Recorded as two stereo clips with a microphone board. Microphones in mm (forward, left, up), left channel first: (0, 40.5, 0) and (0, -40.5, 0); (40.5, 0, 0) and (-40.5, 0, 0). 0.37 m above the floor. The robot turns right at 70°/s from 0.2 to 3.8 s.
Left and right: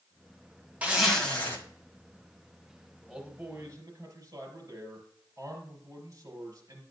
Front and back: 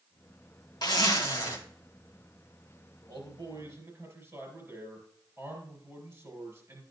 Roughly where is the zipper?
Ahead.